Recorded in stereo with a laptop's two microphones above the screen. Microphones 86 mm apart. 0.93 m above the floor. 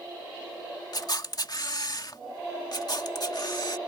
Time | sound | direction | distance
0.9 | a camera shutter | 50° left (ahead or behind) | ?
2.7 | a camera shutter | 50° left (ahead or behind) | ?